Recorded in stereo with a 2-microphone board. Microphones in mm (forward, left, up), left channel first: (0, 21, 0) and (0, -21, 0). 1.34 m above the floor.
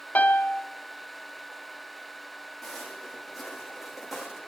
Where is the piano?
40° left (ahead or behind), 0.8 m.